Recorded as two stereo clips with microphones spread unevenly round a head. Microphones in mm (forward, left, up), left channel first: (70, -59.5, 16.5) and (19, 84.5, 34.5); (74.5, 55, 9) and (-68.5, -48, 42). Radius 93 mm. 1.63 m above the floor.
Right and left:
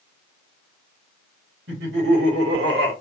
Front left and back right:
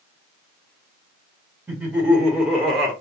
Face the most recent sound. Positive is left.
turn(degrees=125)